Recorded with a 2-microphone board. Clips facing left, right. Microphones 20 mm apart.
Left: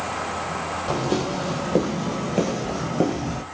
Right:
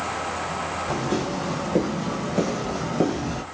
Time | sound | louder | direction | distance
0.9 | footsteps | left 3 dB | 45° left (ahead or behind) | 2.5 m